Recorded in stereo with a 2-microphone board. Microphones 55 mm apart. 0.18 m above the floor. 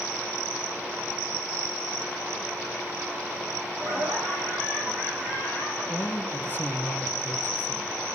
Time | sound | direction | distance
3.8 | laughter | 55° right (ahead or behind) | 6.5 m
5.9 | a man speaking | 40° left (ahead or behind) | 1.6 m